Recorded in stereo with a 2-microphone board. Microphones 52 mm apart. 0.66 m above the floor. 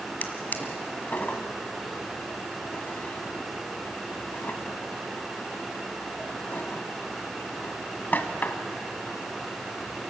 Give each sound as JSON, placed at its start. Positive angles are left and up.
{"t": 0.2, "sound": "a drawer", "side_deg": 40, "distance_m": 1.6}